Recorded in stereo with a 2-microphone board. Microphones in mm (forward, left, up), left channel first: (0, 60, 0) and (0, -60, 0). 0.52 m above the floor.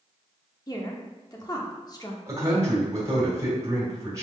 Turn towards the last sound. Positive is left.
turn(degrees=-30)  # may be behind; listen again after turning